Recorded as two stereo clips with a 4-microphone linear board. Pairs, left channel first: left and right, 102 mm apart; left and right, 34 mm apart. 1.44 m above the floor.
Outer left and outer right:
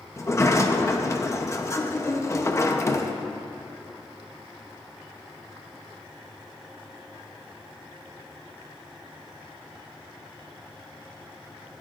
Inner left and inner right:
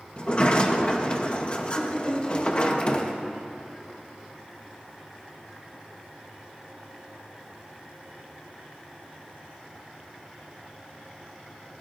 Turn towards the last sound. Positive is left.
turn(degrees=30)  # may be behind; listen again after turning